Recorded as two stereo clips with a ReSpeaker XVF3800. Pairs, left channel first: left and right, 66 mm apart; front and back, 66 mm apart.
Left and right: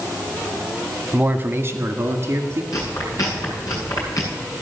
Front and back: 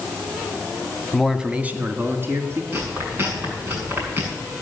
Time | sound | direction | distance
1.1 | a man speaking | 75° right | 1.0 m
2.7 | chewing | 125° left | 7.5 m